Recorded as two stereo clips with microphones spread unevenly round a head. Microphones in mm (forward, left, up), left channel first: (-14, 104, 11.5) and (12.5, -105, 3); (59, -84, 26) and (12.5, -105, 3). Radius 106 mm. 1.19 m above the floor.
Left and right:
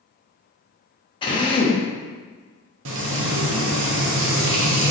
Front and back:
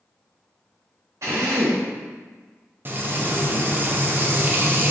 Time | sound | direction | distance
1.2 | a drill | 150° left | 0.6 m
2.9 | frying | 90° right | 0.7 m